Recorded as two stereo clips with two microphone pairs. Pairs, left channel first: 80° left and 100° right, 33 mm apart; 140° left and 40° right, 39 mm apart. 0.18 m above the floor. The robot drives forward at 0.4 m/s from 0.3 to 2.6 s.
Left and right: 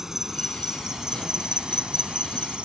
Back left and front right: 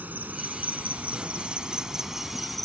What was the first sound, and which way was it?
An insect, 30° right.